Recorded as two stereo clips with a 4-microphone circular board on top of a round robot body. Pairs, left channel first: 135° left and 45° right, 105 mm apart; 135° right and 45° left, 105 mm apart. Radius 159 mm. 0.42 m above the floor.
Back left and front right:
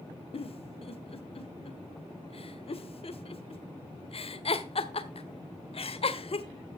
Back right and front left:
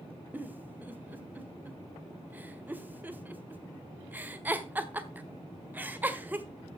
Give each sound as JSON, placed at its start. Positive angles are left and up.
{"t": 0.3, "sound": "a giggle", "azimuth_deg": 115, "distance_m": 1.6}